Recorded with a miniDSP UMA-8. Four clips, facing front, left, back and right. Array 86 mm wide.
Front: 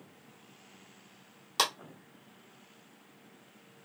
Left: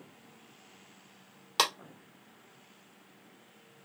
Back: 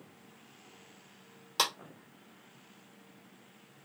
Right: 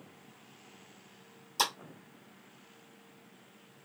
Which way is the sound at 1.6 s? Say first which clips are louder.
Left 3 dB, front 2 dB; 80° left.